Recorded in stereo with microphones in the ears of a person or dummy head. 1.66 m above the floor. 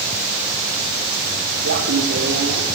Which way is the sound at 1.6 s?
65° right (ahead or behind).